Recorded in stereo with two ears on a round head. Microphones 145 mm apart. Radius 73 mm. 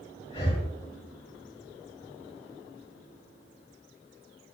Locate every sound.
0.3 s breathing: 35° left (ahead or behind), 3 m